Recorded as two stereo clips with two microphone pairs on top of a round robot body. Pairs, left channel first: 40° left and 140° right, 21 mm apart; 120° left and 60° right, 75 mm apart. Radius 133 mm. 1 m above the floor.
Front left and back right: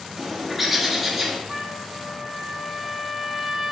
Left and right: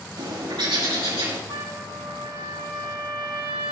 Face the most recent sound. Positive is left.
turn(degrees=-65)